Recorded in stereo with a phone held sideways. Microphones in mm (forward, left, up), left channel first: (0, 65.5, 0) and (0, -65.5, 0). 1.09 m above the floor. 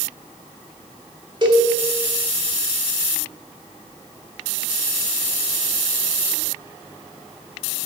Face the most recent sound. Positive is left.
turn(degrees=-35)  # may be behind; listen again after turning